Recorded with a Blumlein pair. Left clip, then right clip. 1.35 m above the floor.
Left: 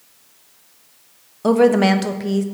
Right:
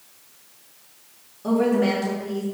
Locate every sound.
1.4 s a woman speaking: 55° left, 0.6 m